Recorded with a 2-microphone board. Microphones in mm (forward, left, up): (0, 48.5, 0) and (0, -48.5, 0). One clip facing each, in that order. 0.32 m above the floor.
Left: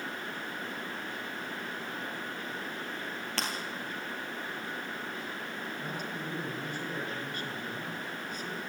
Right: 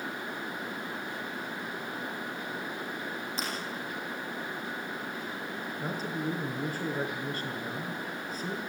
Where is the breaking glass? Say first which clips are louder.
Left 2 dB; 75° left (ahead or behind), 4.5 m.